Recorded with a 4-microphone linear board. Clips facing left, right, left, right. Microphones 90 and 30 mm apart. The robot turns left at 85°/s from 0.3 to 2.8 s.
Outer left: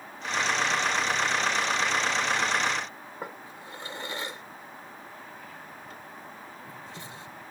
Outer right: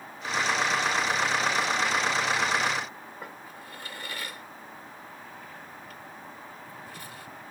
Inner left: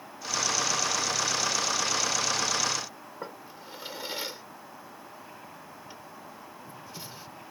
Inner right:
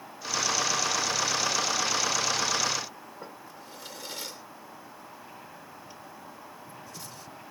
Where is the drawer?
25° left (ahead or behind).